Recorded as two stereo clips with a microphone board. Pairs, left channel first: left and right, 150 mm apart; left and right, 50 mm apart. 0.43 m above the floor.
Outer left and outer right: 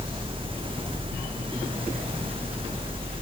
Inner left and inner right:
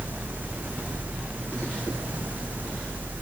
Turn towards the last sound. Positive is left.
No sound to turn to.